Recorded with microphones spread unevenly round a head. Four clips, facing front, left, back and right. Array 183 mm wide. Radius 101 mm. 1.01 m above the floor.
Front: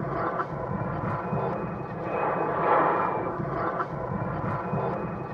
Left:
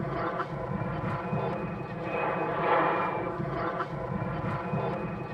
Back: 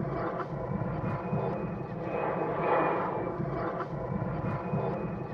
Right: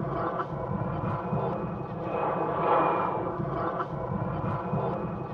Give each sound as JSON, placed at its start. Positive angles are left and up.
{"t": 0.0, "sound": "an aircraft", "azimuth_deg": -15}